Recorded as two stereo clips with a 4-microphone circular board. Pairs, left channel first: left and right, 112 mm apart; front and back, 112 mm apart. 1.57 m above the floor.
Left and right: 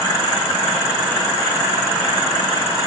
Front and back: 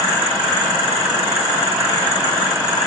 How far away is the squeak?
No squeak in this recording.